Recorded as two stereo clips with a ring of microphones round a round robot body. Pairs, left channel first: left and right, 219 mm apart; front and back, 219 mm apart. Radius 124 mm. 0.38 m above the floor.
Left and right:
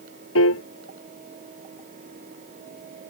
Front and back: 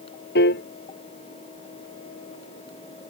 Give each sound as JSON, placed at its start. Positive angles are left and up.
{"t": 0.3, "sound": "a piano", "azimuth_deg": 50}